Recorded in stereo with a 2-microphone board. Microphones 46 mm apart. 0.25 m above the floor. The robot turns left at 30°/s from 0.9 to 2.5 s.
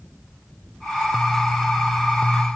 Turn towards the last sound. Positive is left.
No sound to turn to.